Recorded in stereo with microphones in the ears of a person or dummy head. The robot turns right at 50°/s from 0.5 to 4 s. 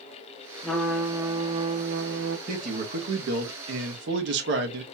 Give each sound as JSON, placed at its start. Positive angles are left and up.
{"t": 0.6, "sound": "a trumpet", "azimuth_deg": 170, "distance_m": 0.8}
{"t": 2.5, "sound": "a man speaking", "azimuth_deg": -145, "distance_m": 1.2}